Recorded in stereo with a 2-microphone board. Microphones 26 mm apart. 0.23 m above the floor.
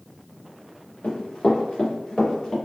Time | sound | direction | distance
1.0 | running footsteps | 65° left (ahead or behind) | 1.6 m